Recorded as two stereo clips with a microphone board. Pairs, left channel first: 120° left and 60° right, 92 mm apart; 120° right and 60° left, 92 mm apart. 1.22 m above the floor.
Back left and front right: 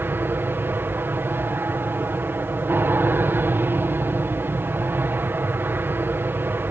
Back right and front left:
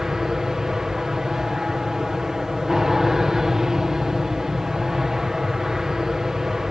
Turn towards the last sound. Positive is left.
turn(degrees=-20)